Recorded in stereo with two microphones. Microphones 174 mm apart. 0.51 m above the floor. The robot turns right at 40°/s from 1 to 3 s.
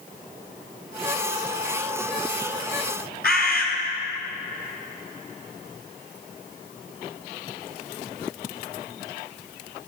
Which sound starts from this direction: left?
A bird, at 3.2 s.